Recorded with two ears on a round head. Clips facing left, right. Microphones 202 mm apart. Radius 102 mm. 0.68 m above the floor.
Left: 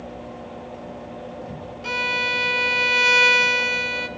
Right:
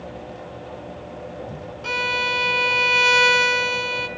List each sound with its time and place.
1.8 s a violin: centre (ahead or behind), 0.9 m